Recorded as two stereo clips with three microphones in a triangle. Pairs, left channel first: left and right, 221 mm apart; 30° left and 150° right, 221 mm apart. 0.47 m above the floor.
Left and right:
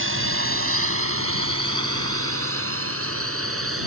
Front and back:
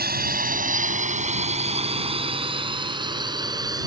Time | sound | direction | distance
0.0 | a drone | 105° right | ?